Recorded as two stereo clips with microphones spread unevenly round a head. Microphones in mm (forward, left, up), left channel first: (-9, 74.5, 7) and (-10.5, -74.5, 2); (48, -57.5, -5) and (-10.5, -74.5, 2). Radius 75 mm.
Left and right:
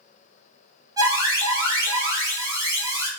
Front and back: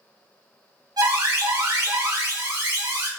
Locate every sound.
1.0 s an alarm: 155° right, 4 m